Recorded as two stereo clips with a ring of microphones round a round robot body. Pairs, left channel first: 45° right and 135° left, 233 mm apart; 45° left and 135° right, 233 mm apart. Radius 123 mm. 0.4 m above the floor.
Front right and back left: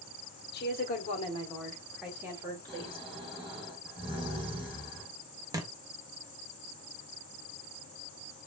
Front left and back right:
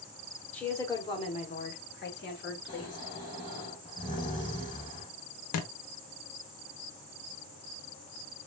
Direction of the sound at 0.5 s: 35° right.